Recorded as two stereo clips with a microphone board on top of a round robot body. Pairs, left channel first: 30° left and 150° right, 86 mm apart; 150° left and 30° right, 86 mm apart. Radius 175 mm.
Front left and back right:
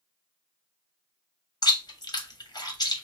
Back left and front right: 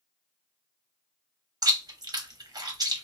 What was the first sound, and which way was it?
Chewing, 5° left.